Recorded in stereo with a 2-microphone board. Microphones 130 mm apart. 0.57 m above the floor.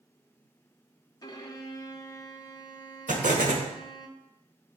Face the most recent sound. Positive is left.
turn(degrees=-80)